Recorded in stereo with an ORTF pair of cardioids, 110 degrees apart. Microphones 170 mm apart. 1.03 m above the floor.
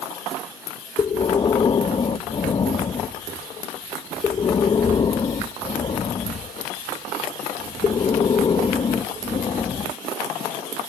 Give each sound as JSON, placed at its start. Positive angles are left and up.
{"t": 1.0, "sound": "breathing", "azimuth_deg": 30}